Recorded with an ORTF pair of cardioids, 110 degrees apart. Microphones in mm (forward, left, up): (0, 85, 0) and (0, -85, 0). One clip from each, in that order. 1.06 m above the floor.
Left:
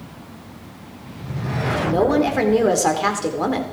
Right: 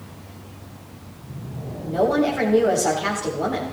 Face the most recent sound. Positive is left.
turn(degrees=55)